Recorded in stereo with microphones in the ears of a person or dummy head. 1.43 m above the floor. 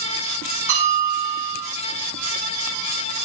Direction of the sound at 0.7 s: 50° right (ahead or behind).